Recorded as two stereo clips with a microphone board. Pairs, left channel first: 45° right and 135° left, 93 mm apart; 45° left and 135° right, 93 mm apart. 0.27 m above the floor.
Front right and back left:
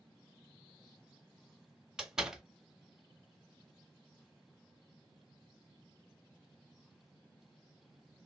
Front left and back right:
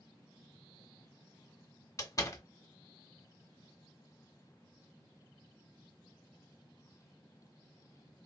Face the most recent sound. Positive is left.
turn(degrees=55)